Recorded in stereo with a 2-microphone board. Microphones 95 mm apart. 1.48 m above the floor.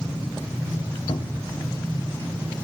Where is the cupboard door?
85° left, 0.8 m.